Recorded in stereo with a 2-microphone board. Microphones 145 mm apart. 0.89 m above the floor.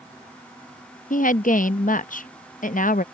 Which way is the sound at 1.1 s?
65° left (ahead or behind).